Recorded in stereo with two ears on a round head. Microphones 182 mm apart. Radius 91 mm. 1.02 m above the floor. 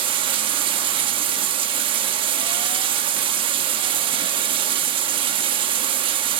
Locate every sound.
0.0 s running water: 25° right (ahead or behind), 1.0 m